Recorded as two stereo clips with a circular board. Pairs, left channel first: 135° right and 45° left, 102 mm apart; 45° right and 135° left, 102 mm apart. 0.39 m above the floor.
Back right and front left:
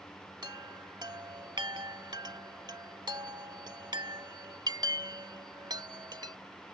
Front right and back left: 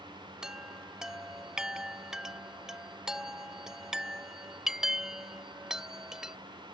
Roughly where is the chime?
Ahead left.